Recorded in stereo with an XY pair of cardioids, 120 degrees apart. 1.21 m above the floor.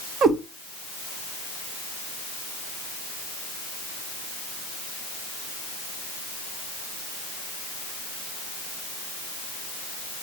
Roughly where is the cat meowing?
Ahead right.